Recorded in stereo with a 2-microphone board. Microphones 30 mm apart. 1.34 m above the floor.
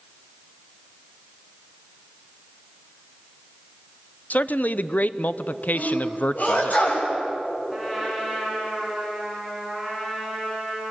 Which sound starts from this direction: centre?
A trumpet, at 7.7 s.